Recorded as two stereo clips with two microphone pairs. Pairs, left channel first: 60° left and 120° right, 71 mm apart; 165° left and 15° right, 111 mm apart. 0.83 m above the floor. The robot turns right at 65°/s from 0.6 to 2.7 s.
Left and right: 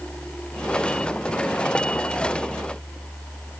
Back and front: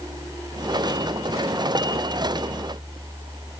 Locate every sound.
Only background noise.